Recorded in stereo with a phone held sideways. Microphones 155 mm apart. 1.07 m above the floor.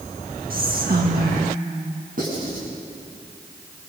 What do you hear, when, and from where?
0.5 s whispering: 65° right (ahead or behind), 1.8 m
2.2 s writing: 60° right (ahead or behind), 9 m